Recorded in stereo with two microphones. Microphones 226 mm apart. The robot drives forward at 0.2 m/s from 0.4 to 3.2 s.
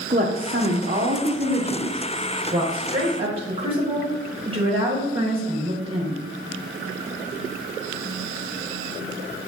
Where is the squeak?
No squeak in this recording.